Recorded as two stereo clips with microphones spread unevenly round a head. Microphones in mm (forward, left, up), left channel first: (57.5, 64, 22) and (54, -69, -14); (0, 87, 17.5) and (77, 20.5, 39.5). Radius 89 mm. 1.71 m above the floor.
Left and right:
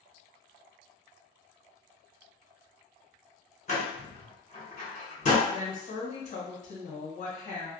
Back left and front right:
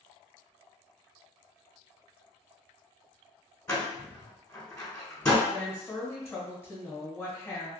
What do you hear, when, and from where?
3.7 s a door slam: 70° left, 1.6 m
5.5 s a woman speaking: 70° left, 1.5 m